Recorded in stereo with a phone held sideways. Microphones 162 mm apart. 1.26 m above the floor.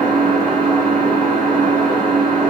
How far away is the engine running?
About 1.1 m.